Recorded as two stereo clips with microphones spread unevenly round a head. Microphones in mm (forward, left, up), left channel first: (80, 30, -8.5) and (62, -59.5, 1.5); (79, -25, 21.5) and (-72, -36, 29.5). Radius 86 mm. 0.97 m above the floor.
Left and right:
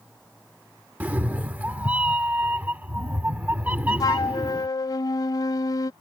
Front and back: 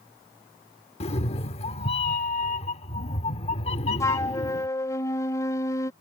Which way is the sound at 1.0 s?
40° right.